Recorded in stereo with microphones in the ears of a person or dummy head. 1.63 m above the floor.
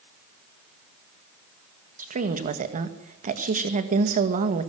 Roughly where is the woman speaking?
Right.